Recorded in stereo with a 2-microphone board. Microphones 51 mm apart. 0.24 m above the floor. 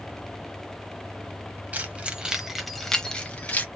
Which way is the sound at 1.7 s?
30° right (ahead or behind).